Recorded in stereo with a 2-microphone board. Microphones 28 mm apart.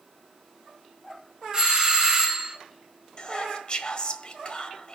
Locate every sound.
1.5 s a doorbell: 25° right (ahead or behind), 5 m
3.2 s whispering: 35° left (ahead or behind), 1.4 m